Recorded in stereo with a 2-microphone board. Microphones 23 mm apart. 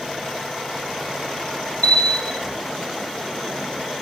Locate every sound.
1.8 s a bell: 65° left (ahead or behind), 2.5 m